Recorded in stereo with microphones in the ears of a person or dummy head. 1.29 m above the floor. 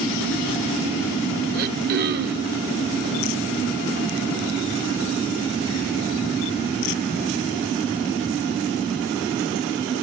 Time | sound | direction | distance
1.5 | throat clearing | 55° right (ahead or behind) | 0.9 m